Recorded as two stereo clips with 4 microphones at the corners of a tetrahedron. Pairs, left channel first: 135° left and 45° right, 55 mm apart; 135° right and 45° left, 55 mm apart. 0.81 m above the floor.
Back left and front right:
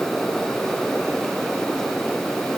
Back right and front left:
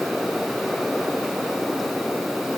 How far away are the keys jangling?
I don't hear keys jangling.